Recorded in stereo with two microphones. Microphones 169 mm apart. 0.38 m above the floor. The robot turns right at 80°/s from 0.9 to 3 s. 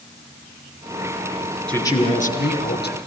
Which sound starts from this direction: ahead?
A man speaking, at 1.7 s.